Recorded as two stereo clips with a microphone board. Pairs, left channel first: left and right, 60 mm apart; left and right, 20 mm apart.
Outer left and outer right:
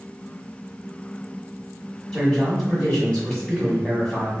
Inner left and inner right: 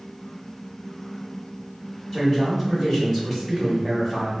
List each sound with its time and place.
2.1 s a man speaking: 20° left (ahead or behind), 1.0 m